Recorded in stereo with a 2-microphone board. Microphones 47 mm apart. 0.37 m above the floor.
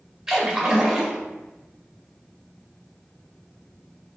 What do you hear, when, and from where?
0.3 s a splash: 15° right (ahead or behind), 0.7 m